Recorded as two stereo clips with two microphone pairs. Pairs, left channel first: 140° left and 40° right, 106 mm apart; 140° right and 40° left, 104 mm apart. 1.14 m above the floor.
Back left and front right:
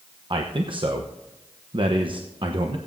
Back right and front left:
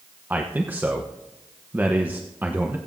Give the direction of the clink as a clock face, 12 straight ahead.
No clink in this recording.